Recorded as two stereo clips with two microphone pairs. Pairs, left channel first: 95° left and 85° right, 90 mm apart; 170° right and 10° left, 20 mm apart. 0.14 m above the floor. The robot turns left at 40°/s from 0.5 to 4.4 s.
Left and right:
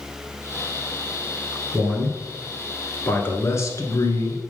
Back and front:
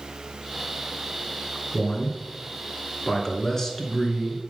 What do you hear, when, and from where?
1.7 s a man speaking: 150° right, 1.6 m; by 4.4 s 105° left, 1.6 m